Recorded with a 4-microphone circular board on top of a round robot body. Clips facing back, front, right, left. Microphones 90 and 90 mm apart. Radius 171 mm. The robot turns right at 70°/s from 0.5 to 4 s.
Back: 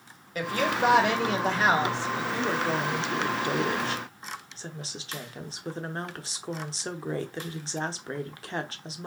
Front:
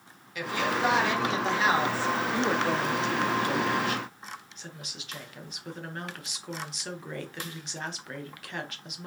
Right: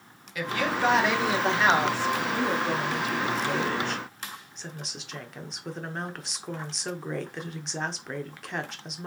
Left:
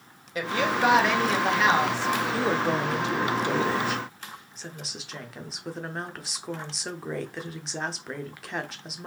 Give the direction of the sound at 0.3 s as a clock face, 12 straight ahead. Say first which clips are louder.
Back 2 dB, left 2 dB; 7 o'clock.